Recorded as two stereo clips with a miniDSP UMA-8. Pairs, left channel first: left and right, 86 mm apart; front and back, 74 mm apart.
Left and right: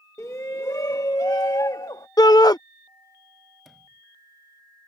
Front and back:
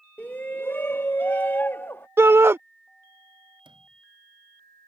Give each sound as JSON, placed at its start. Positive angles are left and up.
{"t": 0.2, "sound": "a shout", "azimuth_deg": 55}
{"t": 2.2, "sound": "a shout", "azimuth_deg": 125}
{"t": 3.6, "sound": "a sliding door", "azimuth_deg": 180}